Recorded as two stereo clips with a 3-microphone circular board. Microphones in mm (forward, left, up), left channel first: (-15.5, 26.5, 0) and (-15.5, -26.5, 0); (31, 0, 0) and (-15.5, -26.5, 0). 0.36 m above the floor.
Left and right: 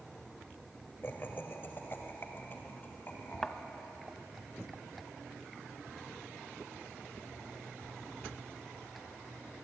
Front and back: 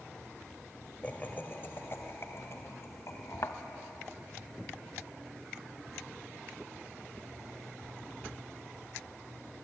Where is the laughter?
75° left, 1.5 m; by 4.1 s 35° left, 3.5 m.